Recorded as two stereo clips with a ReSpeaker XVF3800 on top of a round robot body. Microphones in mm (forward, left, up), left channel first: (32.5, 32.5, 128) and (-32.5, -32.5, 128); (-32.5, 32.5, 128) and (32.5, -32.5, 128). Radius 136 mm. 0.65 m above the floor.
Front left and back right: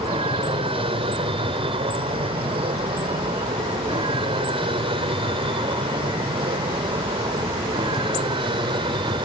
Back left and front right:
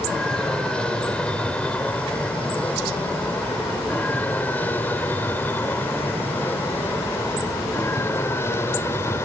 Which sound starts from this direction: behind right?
An aircraft, at 0.0 s.